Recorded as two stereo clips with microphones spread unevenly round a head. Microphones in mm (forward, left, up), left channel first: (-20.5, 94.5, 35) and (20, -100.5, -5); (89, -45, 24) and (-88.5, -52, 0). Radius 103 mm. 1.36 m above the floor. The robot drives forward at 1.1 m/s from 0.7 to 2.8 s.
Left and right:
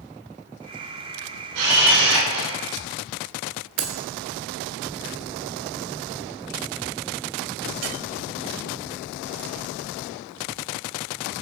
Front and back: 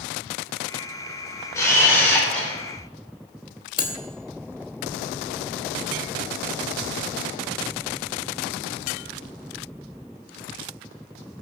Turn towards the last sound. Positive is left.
turn(degrees=-60)